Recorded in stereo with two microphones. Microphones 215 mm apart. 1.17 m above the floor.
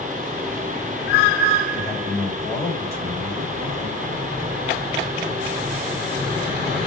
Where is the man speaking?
30° left (ahead or behind), 2.0 m.